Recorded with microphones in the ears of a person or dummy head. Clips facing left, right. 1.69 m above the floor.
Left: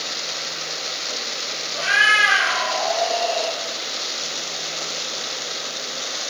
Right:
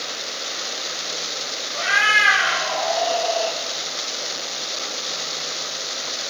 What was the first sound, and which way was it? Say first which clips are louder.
A cat meowing: even; 10° left (ahead or behind).